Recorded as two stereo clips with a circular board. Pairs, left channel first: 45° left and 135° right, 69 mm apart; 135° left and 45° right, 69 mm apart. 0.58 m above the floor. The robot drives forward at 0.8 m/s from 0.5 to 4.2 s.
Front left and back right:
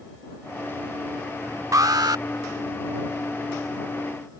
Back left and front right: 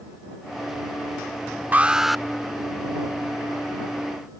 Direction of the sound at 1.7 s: 105° right.